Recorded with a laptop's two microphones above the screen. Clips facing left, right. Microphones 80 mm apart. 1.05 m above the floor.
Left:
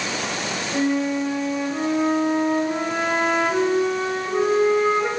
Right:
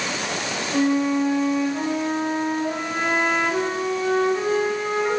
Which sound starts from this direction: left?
A flute, at 0.7 s.